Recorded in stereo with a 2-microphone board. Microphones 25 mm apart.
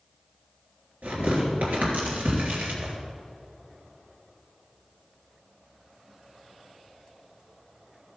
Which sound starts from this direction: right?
Tearing paper, at 1.0 s.